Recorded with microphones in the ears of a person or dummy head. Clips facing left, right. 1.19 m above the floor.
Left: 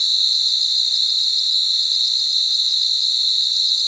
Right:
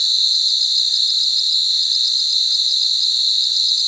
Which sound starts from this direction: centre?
An insect, at 0.0 s.